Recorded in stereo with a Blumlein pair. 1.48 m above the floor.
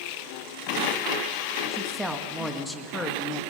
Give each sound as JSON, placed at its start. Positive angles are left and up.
{"t": 1.7, "sound": "a woman speaking", "azimuth_deg": -15, "distance_m": 2.0}